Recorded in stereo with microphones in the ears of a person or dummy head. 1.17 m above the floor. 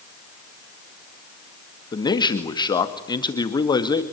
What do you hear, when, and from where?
1.9 s a man speaking: 25° left (ahead or behind), 2 m